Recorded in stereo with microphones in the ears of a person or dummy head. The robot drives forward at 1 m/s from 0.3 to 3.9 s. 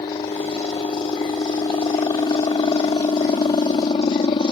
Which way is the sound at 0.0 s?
20° left (ahead or behind).